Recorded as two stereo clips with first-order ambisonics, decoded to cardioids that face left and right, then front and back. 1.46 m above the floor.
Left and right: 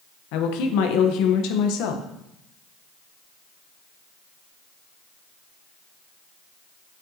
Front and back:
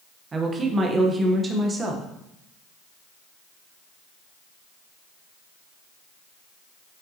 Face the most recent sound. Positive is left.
turn(degrees=110)